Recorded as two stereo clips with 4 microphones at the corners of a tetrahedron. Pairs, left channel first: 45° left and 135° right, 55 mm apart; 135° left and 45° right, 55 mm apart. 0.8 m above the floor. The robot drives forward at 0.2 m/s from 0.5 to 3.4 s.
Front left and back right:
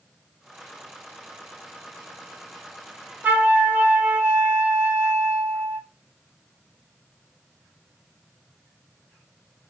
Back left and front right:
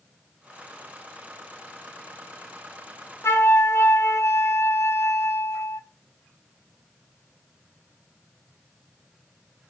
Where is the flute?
165° left, 0.7 m.